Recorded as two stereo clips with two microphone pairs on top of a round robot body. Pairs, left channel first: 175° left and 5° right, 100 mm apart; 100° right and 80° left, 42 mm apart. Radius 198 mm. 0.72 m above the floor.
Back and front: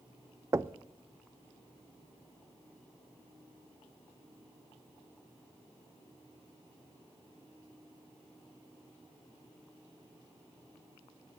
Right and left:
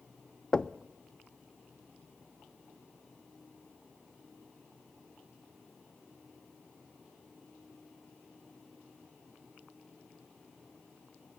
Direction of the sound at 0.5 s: 50° right.